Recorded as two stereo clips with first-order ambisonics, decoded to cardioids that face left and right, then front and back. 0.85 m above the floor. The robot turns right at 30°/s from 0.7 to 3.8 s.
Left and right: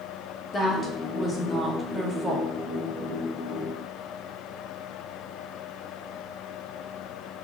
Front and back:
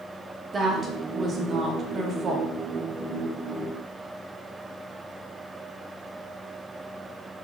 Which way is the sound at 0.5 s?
135° left.